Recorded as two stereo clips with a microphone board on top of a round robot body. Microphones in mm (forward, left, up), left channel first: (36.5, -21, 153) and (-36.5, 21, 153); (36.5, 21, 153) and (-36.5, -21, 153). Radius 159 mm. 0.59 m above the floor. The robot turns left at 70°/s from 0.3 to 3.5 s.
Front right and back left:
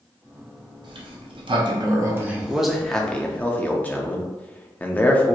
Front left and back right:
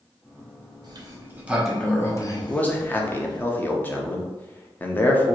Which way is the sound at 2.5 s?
80° left.